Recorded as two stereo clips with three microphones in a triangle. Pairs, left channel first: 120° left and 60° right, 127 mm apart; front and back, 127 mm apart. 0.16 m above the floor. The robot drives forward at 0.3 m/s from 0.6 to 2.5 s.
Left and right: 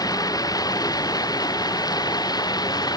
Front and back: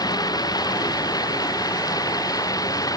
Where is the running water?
60° left.